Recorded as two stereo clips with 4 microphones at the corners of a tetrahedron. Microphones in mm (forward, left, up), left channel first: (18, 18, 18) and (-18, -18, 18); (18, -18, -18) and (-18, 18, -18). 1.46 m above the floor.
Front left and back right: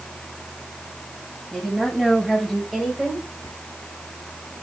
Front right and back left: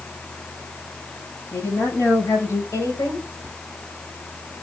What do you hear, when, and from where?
1.5 s a woman speaking: 45° right, 9 m
3.4 s whispering: 45° left, 0.6 m